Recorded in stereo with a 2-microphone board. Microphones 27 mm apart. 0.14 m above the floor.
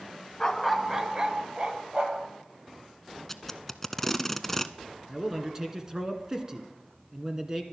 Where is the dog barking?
25° left (ahead or behind), 0.6 m; by 2.3 s 45° right (ahead or behind), 1.9 m.